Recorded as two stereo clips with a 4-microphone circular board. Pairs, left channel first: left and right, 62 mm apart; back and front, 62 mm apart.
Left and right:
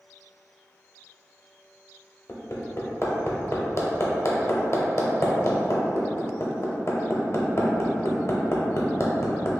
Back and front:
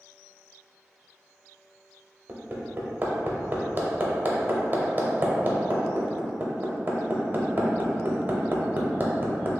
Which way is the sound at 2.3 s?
60° left.